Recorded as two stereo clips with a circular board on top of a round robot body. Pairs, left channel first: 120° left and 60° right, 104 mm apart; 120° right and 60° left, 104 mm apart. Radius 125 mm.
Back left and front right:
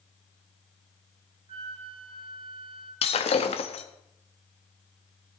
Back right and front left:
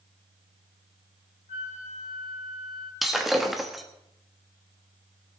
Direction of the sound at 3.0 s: 150° left.